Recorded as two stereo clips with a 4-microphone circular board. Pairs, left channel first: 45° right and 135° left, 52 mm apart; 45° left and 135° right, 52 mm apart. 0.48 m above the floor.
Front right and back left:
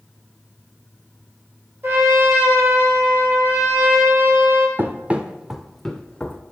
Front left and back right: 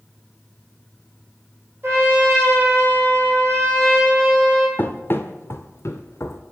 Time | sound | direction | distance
1.8 | a trumpet | straight behind | 3 m
4.8 | running footsteps | 90° left | 0.8 m